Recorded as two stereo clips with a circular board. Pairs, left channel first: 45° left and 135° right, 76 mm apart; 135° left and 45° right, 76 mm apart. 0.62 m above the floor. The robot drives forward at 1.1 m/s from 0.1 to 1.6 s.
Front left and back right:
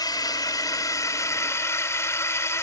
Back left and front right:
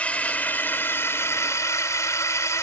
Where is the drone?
65° left; by 2.6 s 90° left.